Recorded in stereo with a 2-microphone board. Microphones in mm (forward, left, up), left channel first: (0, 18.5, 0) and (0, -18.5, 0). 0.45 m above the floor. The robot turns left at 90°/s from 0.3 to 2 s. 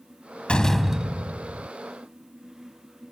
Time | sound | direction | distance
0.5 | a door slam | 30° left | ?